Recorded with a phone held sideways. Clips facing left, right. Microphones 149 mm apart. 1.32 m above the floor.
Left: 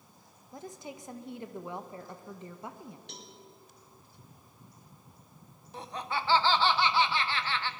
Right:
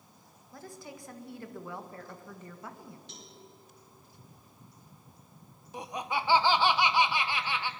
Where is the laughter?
15° right (ahead or behind), 0.9 m.